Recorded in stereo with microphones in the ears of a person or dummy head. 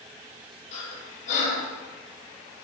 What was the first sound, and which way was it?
Breathing, 40° left (ahead or behind).